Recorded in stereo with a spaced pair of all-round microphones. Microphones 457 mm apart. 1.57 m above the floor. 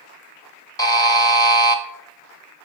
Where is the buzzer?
10° left (ahead or behind), 0.7 m.